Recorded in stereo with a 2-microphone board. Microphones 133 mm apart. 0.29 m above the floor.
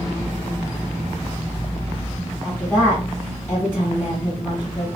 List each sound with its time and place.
2.4 s a woman speaking: 20° left (ahead or behind), 1.9 m